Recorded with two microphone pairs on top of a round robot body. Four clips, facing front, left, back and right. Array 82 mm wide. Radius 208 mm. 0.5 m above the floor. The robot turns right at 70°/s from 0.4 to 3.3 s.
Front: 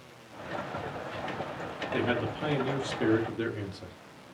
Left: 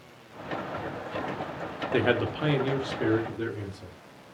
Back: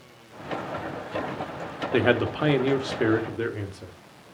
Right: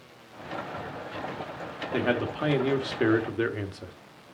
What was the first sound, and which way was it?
A man speaking, 160° left.